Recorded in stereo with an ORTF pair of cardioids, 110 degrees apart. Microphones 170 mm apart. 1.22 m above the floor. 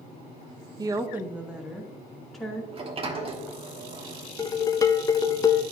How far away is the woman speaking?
About 0.6 m.